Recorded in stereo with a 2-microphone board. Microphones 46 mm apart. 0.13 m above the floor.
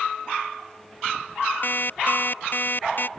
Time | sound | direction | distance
1.6 | an alarm clock | 50° left (ahead or behind) | ?